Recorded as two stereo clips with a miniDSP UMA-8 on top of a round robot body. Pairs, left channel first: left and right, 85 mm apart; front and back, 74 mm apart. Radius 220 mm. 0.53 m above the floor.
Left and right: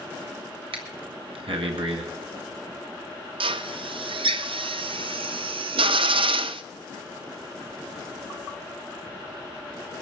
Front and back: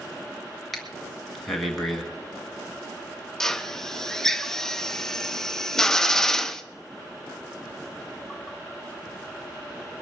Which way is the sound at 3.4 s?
85° right.